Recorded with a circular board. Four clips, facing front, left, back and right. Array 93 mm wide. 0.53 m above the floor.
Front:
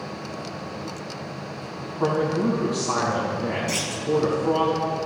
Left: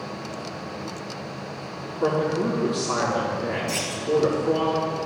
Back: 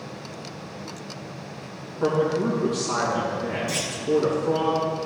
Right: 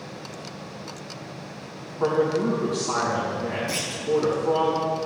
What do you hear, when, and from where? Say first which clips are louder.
2.0 s a man speaking: right 1 dB, even; 25° right, 4 m
3.7 s a clunk: left 2 dB, front 1 dB; 10° right, 1.8 m